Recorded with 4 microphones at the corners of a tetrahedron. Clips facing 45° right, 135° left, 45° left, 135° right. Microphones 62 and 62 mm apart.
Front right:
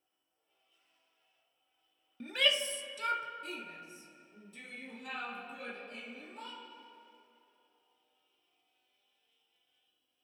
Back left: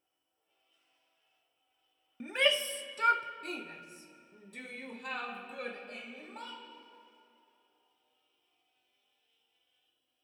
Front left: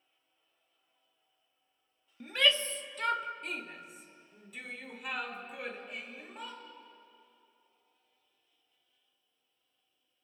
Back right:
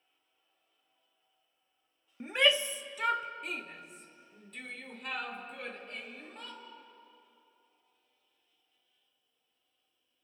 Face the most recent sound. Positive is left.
turn(degrees=125)